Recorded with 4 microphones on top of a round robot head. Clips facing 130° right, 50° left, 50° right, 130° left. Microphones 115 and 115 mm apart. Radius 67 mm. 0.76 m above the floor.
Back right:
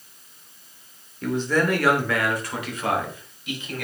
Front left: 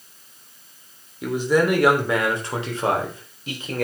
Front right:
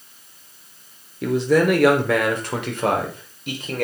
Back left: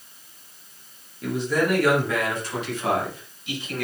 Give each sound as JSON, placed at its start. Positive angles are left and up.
{"t": 1.2, "sound": "a man speaking", "azimuth_deg": -30, "distance_m": 3.0}